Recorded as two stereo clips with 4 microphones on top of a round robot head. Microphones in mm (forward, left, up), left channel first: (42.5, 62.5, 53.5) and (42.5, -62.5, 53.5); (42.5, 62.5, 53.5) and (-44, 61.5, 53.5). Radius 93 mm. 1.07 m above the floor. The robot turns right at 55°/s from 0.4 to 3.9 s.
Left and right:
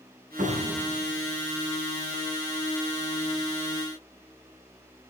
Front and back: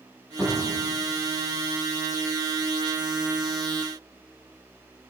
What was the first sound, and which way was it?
A cupboard door, 95° right.